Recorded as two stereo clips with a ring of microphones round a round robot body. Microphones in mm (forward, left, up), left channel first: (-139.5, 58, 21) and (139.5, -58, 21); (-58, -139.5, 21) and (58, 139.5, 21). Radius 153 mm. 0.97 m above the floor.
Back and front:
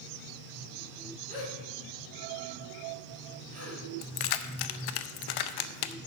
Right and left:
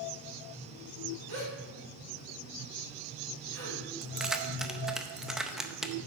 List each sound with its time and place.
1.3 s a gasp: 45° left, 5 m
4.0 s keys jangling: 155° left, 0.6 m